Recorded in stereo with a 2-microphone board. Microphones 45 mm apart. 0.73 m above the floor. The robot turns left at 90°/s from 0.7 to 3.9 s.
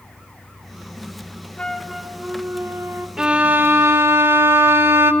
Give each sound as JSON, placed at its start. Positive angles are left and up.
{"t": 1.6, "sound": "a flute", "azimuth_deg": 30, "distance_m": 0.8}
{"t": 3.2, "sound": "a violin", "azimuth_deg": -15, "distance_m": 0.8}